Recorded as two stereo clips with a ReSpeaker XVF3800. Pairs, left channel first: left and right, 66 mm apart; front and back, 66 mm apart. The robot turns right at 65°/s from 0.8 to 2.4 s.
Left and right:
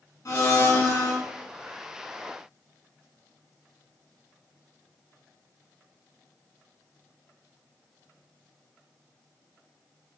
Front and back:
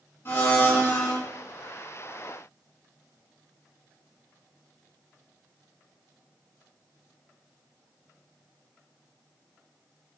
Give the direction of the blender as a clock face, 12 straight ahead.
10 o'clock.